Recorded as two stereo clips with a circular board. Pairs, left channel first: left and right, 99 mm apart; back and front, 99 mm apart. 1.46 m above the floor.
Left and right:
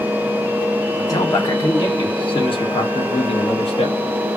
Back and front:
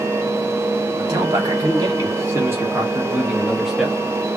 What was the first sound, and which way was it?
A man speaking, 45° left.